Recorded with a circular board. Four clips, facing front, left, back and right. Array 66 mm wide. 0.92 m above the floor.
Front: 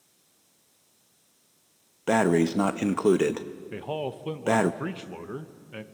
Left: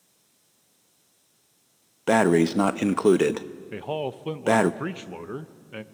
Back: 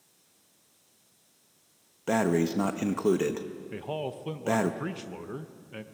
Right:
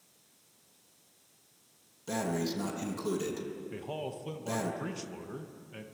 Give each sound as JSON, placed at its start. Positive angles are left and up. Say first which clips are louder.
{"t": 2.1, "sound": "breathing", "louder": "left 14 dB, front 4 dB", "azimuth_deg": 70, "distance_m": 0.7}
{"t": 3.7, "sound": "a man speaking", "louder": "left 13 dB, front 3 dB", "azimuth_deg": 75, "distance_m": 0.9}